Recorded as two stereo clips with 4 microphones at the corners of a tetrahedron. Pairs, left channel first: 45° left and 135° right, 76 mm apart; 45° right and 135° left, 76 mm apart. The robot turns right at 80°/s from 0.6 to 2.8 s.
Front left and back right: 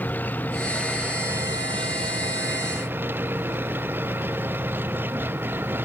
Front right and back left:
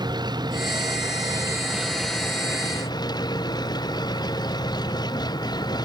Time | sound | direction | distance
0.0 | an engine running | 110° left | ?